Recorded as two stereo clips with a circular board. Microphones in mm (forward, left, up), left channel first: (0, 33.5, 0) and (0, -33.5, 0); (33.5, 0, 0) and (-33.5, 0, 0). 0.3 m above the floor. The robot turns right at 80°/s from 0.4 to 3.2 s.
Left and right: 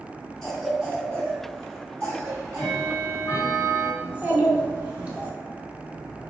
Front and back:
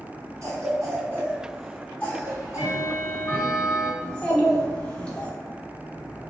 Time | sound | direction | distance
0.4 | a cough | straight behind | 1.6 m
2.2 | ticking | 15° right | 1.5 m
4.0 | a child speaking | 50° right | 0.8 m